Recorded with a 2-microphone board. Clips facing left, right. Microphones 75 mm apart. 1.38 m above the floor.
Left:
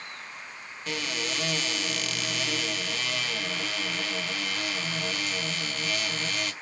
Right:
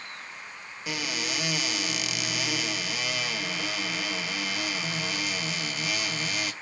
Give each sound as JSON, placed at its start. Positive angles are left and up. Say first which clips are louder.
{"t": 0.9, "sound": "a cupboard door", "louder": "even", "side_deg": -5, "distance_m": 0.9}